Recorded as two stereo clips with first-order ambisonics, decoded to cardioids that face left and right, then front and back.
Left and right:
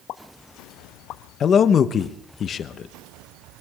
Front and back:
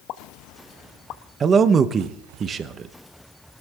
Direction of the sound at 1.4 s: 130° left.